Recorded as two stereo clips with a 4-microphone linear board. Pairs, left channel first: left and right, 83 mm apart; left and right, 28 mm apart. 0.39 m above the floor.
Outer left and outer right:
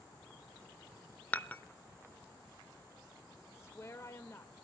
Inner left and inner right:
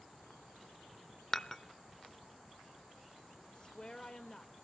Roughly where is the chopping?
I don't hear chopping.